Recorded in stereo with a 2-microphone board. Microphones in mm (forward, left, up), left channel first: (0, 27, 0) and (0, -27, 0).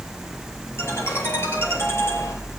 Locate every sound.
0.8 s a ringtone: 50° left (ahead or behind), 6.5 m